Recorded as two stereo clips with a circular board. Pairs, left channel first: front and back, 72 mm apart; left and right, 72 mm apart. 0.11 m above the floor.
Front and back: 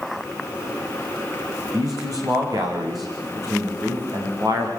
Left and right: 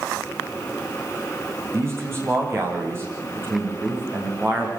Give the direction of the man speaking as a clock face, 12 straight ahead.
5 o'clock.